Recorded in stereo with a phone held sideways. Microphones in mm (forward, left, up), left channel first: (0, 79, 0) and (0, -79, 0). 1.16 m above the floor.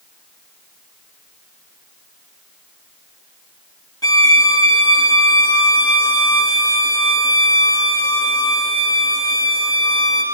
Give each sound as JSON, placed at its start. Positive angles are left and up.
{"t": 4.0, "sound": "a violin", "side_deg": 25, "distance_m": 1.2}